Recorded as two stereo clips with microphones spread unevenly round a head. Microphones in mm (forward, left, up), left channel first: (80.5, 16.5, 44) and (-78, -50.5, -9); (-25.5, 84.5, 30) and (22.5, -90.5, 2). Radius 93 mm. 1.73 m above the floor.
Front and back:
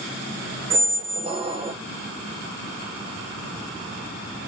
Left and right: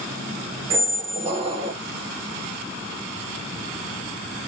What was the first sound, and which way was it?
A squeak, 100° right.